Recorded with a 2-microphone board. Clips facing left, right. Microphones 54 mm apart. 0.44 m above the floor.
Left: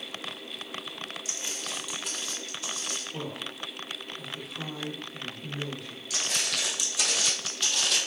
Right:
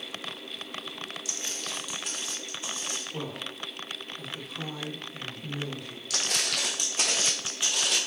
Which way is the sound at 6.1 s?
65° right (ahead or behind).